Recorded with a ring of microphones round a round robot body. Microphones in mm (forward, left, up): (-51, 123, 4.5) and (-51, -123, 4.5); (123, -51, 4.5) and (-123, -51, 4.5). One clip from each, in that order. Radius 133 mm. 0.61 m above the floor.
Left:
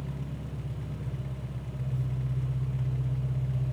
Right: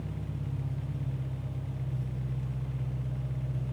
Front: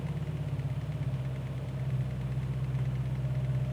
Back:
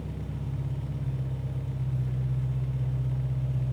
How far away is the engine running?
About 5.5 m.